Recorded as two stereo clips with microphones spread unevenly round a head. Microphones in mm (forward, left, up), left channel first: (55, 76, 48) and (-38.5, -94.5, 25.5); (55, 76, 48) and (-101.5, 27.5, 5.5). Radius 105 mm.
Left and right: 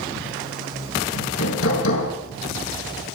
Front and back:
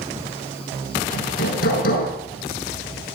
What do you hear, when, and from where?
1.1 s hammering: 40° left, 5.5 m